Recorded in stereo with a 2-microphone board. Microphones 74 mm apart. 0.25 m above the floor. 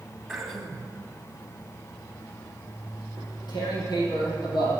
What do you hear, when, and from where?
0.3 s throat clearing: 5° right (ahead or behind), 1.8 m
3.2 s tearing paper: 85° left, 5.5 m